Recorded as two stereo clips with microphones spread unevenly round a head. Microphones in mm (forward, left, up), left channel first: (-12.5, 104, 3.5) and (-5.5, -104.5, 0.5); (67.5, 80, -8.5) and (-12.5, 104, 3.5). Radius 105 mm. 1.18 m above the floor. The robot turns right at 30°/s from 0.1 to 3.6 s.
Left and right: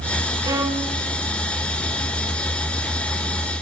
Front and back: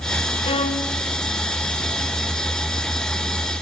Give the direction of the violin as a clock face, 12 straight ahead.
1 o'clock.